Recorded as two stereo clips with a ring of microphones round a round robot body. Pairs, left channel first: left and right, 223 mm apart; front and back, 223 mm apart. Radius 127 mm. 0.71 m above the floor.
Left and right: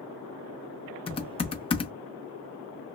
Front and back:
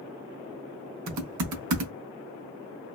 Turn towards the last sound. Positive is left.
turn(degrees=155)